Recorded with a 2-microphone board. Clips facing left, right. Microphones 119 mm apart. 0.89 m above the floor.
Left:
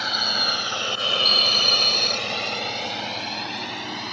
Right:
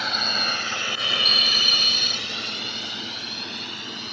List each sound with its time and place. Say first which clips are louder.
0.0 s a drone: even; centre (ahead or behind); by 4.1 s 80° left